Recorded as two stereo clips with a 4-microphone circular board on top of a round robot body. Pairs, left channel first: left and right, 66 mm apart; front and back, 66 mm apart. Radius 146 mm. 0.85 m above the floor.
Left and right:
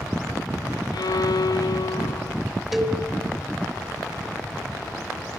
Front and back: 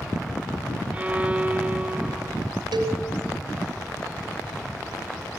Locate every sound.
0.9 s a violin: 110° left, 0.6 m
2.7 s a cowbell: 175° right, 1.9 m